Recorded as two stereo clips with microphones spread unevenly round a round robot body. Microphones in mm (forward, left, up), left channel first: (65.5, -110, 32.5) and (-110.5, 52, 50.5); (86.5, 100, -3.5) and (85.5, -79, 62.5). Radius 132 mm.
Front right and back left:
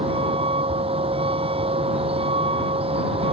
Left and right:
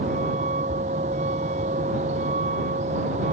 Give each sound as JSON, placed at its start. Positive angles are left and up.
{"t": 0.0, "sound": "a vehicle", "azimuth_deg": -155}